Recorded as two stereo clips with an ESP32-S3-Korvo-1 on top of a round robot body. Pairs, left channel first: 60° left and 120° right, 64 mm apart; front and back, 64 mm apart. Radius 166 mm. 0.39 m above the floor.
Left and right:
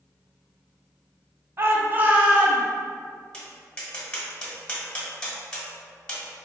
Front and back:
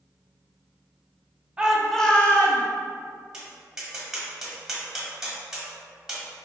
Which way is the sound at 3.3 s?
110° left.